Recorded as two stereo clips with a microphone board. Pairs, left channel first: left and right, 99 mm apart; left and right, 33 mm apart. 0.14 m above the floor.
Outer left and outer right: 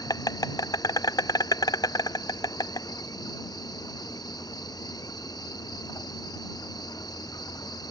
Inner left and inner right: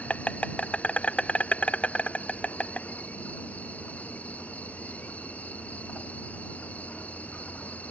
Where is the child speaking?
No child speaking in this recording.